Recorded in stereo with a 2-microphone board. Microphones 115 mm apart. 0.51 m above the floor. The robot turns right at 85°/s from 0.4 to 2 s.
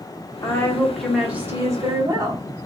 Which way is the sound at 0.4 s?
125° left.